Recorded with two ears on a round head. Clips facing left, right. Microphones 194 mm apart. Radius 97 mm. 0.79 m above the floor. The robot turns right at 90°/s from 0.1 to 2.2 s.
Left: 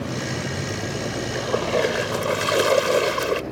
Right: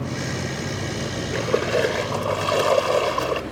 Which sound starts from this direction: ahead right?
A splash, at 1.3 s.